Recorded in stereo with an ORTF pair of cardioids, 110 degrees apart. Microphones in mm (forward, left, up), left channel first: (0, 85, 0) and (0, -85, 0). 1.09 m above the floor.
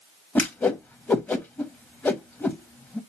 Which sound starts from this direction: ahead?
A whoosh, at 0.3 s.